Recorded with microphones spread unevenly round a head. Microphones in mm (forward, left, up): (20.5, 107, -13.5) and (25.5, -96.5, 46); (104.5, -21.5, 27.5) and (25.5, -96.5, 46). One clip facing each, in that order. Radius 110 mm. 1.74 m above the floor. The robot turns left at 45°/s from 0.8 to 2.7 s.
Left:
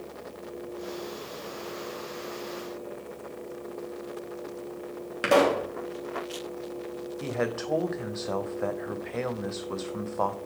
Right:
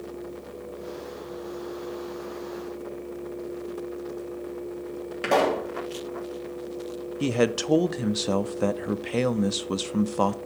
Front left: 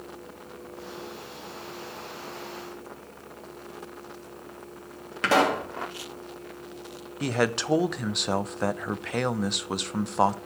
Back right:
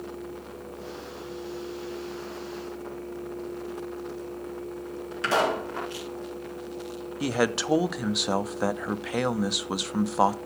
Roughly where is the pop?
Ahead.